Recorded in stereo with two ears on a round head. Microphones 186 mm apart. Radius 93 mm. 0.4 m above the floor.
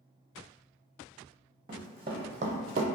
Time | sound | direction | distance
1.7 | running footsteps | 25° right (ahead or behind) | 0.8 m